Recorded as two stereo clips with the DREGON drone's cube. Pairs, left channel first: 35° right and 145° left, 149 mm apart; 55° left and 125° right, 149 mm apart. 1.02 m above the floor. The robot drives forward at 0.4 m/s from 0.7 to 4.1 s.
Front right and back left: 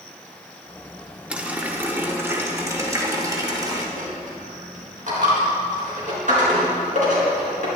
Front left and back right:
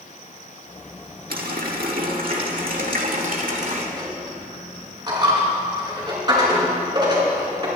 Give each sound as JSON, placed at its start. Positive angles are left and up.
{"t": 1.3, "sound": "a running tap", "azimuth_deg": -130, "distance_m": 1.6}
{"t": 4.0, "sound": "a dropped coin", "azimuth_deg": 175, "distance_m": 4.5}